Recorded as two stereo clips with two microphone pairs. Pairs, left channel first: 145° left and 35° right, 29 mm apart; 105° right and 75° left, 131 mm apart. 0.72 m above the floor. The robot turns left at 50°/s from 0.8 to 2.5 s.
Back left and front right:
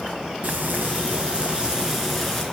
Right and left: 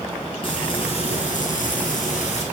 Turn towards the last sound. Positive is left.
turn(degrees=-140)